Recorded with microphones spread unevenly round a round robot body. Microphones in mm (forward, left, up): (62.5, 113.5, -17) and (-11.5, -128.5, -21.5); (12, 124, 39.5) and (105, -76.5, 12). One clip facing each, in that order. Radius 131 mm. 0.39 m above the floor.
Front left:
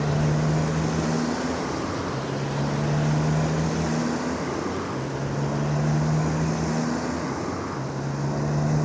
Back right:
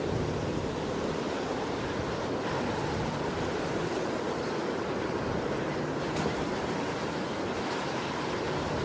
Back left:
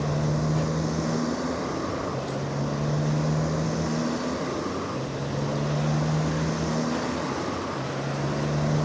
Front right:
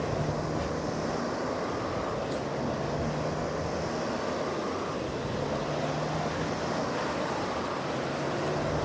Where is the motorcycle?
70° left.